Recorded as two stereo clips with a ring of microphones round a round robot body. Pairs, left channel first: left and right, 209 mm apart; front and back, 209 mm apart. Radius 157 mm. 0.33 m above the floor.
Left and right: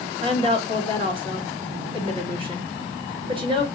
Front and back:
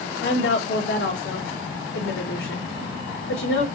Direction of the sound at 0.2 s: 30° right.